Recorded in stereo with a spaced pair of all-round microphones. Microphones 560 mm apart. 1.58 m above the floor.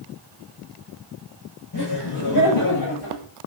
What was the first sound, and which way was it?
Laughter, 50° left (ahead or behind).